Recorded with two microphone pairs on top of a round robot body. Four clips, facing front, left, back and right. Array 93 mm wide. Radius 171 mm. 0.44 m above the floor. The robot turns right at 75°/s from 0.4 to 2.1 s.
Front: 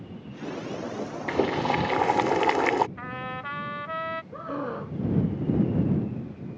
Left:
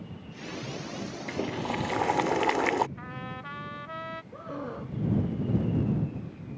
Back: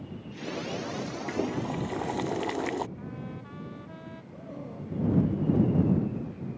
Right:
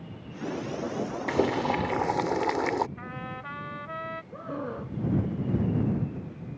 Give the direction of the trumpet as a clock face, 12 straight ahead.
12 o'clock.